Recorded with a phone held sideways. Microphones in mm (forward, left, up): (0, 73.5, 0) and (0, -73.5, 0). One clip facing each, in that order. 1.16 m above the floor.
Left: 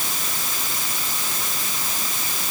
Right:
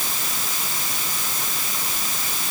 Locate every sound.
Only background noise.